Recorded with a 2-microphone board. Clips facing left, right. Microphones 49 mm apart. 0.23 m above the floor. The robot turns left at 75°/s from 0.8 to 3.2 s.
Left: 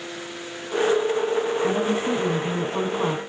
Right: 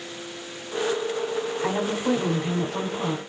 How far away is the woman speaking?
About 1.5 m.